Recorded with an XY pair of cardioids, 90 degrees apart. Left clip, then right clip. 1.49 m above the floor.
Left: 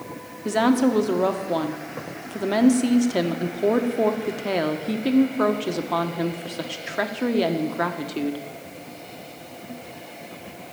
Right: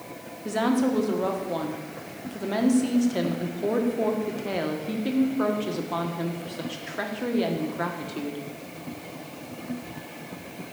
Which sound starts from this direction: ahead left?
A woman speaking, at 0.5 s.